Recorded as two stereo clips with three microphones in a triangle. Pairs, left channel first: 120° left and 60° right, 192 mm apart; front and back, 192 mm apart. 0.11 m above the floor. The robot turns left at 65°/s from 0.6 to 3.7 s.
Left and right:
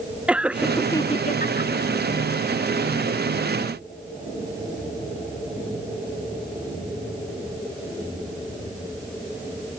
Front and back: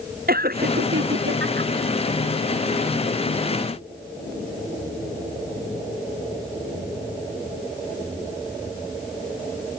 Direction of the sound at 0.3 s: 145° right.